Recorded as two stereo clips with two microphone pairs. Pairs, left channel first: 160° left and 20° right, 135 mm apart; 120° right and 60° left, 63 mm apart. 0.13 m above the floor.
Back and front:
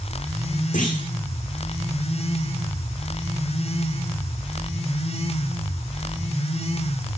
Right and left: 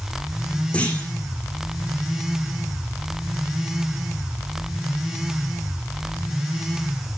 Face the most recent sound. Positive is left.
turn(degrees=170)